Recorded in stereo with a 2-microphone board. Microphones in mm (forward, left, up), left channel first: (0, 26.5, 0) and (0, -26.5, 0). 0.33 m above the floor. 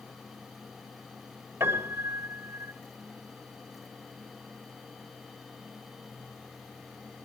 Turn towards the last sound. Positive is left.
turn(degrees=-55)  # may be behind; listen again after turning